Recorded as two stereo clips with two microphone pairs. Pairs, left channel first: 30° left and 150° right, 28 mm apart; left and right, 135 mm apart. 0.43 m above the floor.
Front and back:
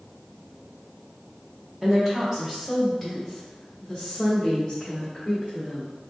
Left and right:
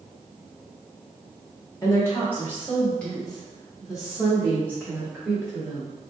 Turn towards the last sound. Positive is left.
turn(degrees=-30)